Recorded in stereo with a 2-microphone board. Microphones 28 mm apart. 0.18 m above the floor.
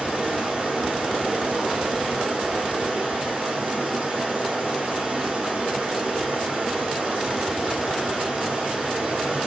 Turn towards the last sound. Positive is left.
turn(degrees=-40)  # may be behind; listen again after turning